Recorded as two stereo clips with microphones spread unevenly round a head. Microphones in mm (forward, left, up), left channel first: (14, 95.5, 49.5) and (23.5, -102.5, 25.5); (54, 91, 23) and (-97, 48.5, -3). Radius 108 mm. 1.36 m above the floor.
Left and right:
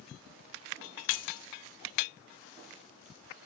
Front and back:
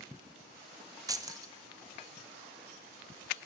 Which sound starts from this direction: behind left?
Keys jangling, at 1.1 s.